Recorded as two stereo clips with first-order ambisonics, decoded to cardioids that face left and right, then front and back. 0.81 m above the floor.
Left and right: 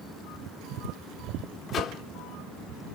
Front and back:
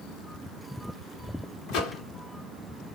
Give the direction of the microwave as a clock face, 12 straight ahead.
11 o'clock.